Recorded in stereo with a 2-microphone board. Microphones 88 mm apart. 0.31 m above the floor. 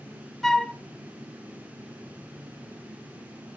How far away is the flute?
About 0.7 m.